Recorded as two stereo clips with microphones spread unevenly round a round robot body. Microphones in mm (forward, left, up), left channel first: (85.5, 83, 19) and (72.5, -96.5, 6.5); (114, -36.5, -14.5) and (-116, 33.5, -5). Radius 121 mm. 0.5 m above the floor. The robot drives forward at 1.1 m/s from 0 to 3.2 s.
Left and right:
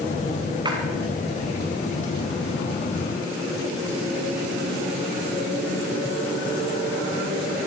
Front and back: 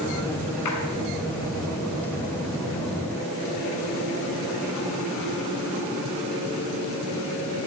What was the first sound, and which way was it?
A splash, 30° right.